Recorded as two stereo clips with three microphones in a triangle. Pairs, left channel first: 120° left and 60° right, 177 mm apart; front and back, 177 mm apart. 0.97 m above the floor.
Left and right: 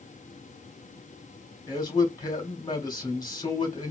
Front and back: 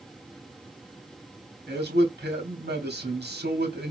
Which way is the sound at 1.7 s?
170° right.